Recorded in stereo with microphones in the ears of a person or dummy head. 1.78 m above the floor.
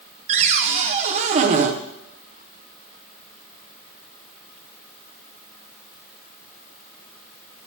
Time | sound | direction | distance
0.3 | a cupboard door | 40° right (ahead or behind) | 1.0 m